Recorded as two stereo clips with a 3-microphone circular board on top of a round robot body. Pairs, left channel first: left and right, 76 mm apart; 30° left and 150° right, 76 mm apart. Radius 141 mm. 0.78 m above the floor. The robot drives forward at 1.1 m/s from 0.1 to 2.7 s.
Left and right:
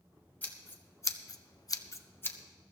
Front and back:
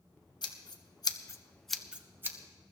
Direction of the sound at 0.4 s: 25° left.